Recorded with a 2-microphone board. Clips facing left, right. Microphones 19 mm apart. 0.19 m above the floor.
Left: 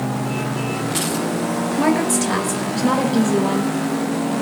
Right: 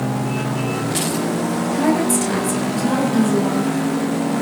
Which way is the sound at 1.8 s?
15° left (ahead or behind).